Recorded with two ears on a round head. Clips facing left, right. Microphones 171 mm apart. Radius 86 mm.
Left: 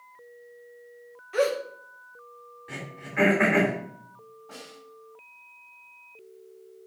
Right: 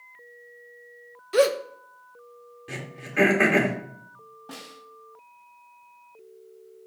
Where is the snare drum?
70° right (ahead or behind), 3 m.